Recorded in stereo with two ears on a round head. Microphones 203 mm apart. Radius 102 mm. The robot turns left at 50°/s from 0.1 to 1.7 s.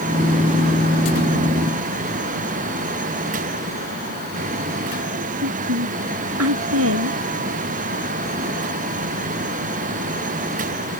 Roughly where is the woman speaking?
Right.